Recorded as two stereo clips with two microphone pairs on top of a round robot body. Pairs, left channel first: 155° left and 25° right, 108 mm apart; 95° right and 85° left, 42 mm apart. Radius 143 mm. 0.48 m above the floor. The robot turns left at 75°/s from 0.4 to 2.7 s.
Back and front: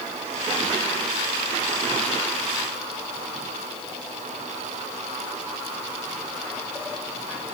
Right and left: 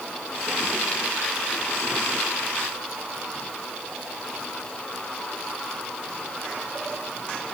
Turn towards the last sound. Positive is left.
No sound to turn to.